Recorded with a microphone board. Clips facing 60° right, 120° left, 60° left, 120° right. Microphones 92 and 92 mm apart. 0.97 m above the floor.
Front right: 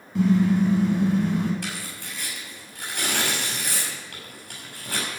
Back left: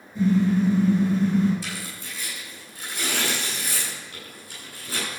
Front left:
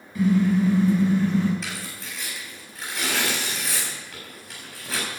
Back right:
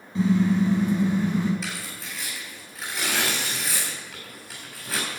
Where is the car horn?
55° right, 4.5 m; by 1.5 s 45° right, 4.5 m.